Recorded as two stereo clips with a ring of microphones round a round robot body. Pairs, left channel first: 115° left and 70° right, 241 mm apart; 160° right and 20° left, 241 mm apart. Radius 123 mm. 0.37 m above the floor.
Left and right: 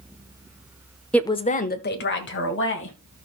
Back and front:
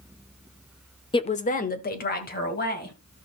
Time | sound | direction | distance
1.1 | a woman speaking | 170° right | 0.8 m